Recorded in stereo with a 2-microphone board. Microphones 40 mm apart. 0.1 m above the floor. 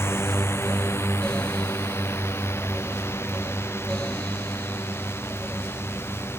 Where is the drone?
80° left; by 6.4 s 75° left (ahead or behind).